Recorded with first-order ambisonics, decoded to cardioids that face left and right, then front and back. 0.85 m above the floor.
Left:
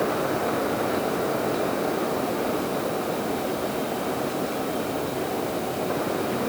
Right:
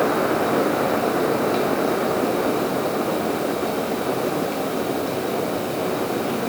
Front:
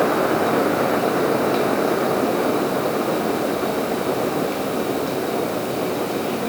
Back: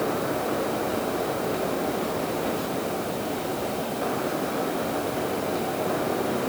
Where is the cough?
No cough in this recording.